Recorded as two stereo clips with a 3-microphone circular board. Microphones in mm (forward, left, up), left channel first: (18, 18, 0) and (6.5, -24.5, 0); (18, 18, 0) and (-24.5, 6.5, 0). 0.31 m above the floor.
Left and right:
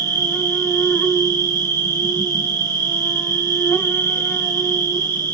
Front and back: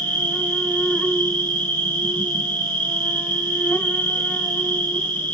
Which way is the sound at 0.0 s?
60° left.